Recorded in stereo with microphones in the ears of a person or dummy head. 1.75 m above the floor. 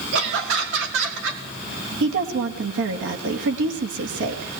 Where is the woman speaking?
75° right (ahead or behind), 2.5 m.